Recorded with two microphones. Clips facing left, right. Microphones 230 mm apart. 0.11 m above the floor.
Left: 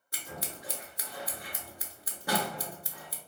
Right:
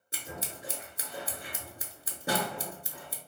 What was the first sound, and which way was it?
Scissors, 30° right (ahead or behind).